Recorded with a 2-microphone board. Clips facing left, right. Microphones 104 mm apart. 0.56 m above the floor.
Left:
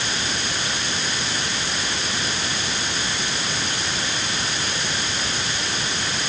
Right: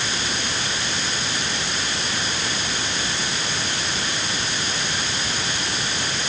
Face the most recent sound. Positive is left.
No sound to turn to.